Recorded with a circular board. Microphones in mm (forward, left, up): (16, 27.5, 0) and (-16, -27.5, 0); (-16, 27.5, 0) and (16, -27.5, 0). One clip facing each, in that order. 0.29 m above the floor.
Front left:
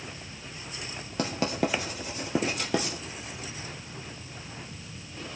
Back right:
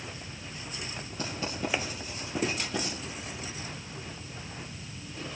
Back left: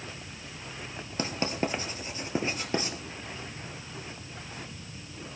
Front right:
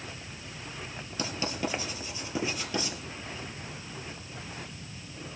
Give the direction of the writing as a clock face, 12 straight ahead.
10 o'clock.